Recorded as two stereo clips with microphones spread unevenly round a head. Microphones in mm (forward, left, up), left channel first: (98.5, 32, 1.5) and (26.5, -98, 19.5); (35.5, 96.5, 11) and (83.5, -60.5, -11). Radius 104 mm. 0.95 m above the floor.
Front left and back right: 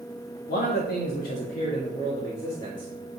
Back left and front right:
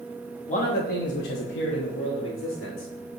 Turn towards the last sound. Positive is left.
turn(degrees=140)